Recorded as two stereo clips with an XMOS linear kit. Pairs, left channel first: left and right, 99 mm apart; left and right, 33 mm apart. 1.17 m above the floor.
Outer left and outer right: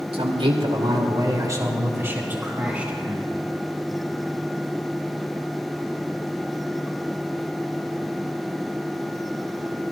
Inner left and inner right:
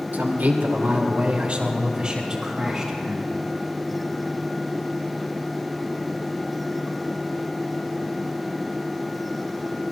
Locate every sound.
0.1 s a man speaking: 70° right (ahead or behind), 2.5 m; by 3.2 s 10° right (ahead or behind), 4 m